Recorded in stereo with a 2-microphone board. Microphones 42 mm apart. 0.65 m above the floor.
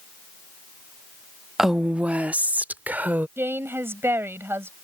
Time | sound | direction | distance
1.6 | a woman speaking | 10° right (ahead or behind) | ?
3.4 | a woman speaking | 70° right (ahead or behind) | ?